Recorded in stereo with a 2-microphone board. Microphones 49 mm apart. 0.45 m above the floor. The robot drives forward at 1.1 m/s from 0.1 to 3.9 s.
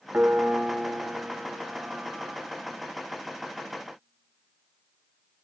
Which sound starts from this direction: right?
A piano, at 0.1 s.